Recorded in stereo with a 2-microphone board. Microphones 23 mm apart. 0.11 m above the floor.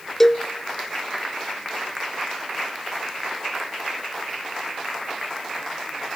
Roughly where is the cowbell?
Left.